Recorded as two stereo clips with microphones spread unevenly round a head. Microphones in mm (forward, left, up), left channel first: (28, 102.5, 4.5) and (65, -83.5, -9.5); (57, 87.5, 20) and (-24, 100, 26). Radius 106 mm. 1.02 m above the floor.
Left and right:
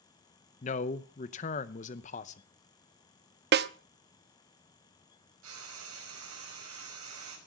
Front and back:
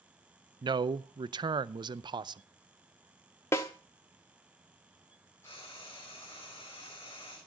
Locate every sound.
0.6 s a man speaking: 155° left, 0.6 m
3.5 s a snare drum: 80° right, 0.6 m
5.4 s frying: 85° right, 5 m